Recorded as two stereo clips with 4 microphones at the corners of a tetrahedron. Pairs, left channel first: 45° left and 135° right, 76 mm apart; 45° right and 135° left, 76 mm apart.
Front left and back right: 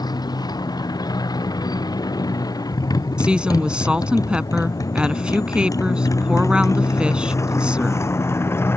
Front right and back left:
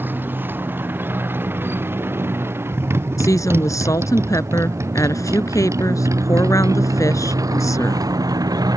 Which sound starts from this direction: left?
A motorcycle, at 0.0 s.